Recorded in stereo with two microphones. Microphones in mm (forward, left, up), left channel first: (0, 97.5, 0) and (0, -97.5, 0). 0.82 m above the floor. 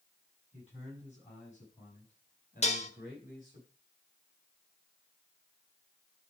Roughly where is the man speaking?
Left.